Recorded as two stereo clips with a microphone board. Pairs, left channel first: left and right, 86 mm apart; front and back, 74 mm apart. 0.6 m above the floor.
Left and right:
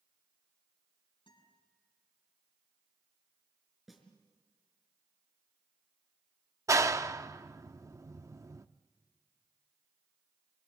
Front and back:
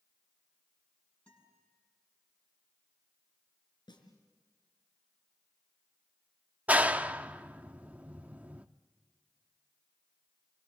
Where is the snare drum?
Straight ahead, 5 m.